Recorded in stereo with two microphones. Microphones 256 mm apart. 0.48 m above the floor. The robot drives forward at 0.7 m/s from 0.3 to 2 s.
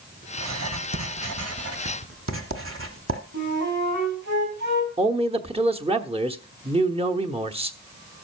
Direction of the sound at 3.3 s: 75° right (ahead or behind).